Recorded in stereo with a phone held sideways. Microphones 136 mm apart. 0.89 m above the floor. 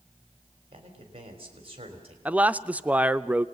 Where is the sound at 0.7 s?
45° right (ahead or behind), 3.5 m.